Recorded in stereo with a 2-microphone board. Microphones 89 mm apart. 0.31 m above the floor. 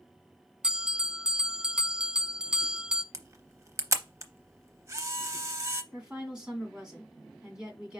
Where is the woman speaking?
10° right (ahead or behind), 2 m.